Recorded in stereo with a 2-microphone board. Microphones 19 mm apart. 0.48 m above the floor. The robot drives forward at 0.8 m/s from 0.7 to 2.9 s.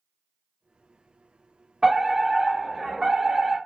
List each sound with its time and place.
1.8 s a fire alarm: 25° right (ahead or behind), 1.8 m; by 3.6 s 20° right (ahead or behind), 2 m